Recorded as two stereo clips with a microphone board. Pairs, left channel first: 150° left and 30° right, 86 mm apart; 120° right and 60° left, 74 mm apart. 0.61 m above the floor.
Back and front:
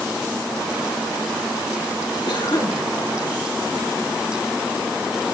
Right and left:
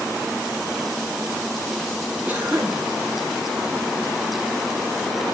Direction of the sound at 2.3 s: 130° left.